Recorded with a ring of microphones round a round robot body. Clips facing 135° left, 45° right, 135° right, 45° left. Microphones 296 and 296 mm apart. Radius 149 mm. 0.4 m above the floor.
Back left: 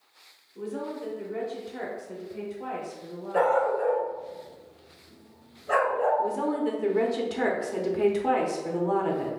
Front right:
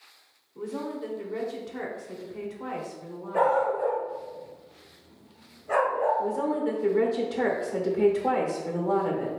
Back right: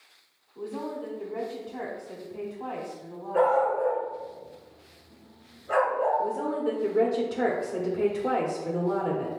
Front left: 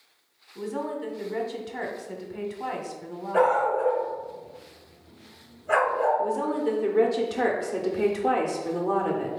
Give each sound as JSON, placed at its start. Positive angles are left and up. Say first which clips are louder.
{"t": 0.6, "sound": "a woman speaking", "louder": "front right 1 dB, front left 3 dB", "azimuth_deg": 40, "distance_m": 1.0}
{"t": 3.3, "sound": "a dog barking", "louder": "back left 1 dB, even", "azimuth_deg": 80, "distance_m": 2.0}
{"t": 6.2, "sound": "a woman speaking", "louder": "even, front left 2 dB", "azimuth_deg": 105, "distance_m": 1.0}